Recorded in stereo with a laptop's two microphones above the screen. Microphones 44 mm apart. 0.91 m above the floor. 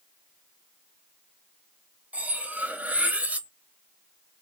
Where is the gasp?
I don't hear a gasp.